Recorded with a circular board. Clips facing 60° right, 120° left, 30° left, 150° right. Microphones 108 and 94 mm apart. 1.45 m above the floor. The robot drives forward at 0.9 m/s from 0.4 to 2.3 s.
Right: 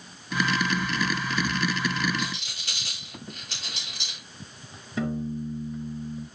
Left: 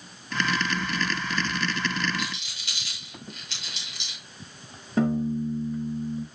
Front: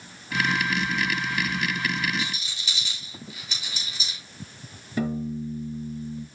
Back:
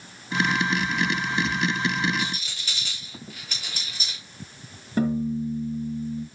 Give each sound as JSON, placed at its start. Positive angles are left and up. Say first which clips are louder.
{"t": 2.2, "sound": "a rattle", "louder": "right 1 dB, back 2 dB", "azimuth_deg": -105, "distance_m": 7.0}
{"t": 5.0, "sound": "a piano", "louder": "left 5 dB, back 4 dB", "azimuth_deg": 160, "distance_m": 4.5}